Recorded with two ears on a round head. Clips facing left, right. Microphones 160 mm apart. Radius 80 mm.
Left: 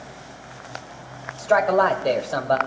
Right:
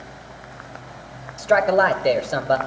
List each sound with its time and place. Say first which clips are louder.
1.4 s a man speaking: right 1 dB; 20° right (ahead or behind), 1.3 m